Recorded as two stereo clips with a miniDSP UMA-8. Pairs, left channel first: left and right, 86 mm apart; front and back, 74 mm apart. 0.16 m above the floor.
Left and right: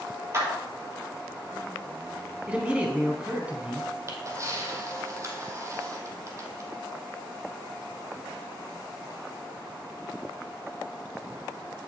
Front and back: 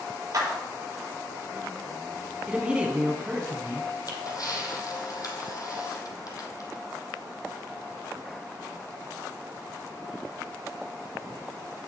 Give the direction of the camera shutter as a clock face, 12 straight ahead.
1 o'clock.